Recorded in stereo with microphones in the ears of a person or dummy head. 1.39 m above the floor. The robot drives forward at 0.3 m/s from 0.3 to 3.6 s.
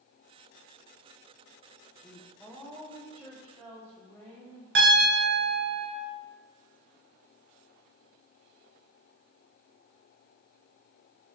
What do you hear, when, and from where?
2.0 s a woman speaking: 15° left (ahead or behind), 0.5 m; by 4.7 s 5° left (ahead or behind), 1.0 m
4.8 s a piano: 60° right (ahead or behind), 0.9 m